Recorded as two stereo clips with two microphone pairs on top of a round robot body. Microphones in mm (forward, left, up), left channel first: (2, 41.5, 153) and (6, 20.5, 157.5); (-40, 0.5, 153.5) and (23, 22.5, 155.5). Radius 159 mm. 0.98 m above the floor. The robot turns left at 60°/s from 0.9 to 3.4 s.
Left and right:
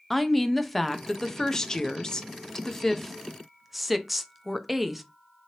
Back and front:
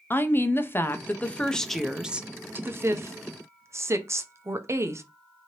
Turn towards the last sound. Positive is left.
turn(degrees=15)